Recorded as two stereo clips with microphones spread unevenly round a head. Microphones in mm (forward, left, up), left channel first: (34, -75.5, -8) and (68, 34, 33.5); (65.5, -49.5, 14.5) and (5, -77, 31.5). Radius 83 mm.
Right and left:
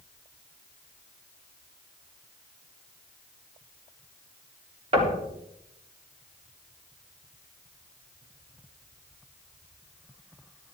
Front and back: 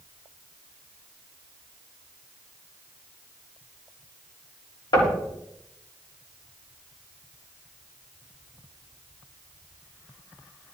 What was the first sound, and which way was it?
Knocking, 45° left.